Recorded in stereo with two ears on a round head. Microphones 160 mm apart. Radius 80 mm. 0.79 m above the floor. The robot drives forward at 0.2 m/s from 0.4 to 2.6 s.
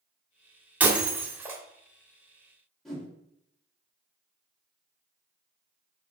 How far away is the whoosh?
About 1.3 m.